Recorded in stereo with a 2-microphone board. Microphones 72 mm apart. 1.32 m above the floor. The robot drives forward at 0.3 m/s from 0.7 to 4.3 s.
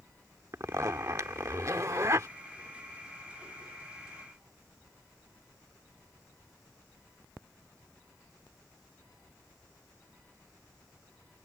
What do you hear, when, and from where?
0.5 s a zipper: 45° right (ahead or behind)